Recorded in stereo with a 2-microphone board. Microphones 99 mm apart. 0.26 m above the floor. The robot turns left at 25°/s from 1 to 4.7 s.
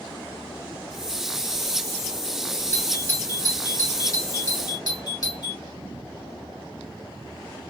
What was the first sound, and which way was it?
A doorbell, 15° left (ahead or behind).